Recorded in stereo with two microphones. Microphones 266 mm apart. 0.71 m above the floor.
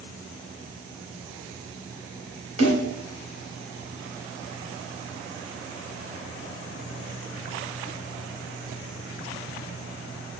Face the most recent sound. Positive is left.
turn(degrees=80)